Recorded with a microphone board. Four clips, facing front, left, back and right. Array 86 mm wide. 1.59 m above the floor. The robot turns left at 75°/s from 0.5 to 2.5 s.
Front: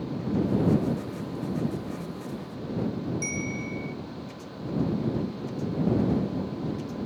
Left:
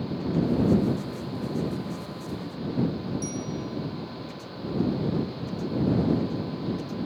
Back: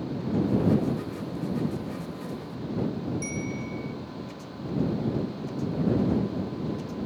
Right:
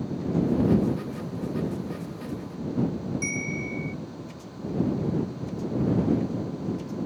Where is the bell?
70° right.